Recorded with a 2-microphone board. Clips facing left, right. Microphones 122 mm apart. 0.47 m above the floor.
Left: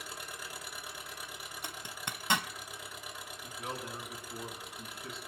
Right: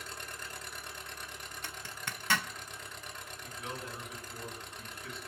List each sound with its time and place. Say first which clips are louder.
0.0 s an engine running: even; 10° left (ahead or behind), 2.0 m
1.6 s a zipper: left 1 dB; 20° left (ahead or behind), 0.6 m
3.4 s a man speaking: left 2 dB; 30° left (ahead or behind), 4.5 m